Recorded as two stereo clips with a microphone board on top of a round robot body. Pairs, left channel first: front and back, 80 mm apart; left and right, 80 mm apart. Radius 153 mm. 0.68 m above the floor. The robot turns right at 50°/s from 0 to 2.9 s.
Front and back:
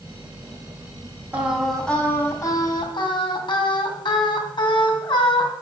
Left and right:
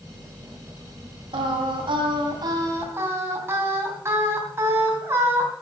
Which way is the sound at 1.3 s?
110° right.